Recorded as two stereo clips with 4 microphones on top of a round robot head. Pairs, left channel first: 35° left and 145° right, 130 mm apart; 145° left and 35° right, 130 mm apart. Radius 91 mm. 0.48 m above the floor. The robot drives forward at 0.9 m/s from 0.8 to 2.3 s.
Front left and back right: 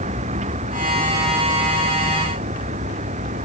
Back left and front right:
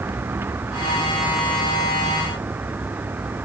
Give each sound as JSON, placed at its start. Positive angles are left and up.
{"t": 0.0, "sound": "a vehicle", "azimuth_deg": -110}